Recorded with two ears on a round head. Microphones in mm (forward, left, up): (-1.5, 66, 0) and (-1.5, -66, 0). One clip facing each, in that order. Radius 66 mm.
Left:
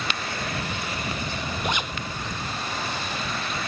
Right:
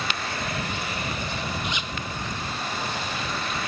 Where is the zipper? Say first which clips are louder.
Left 4 dB; 45° left (ahead or behind).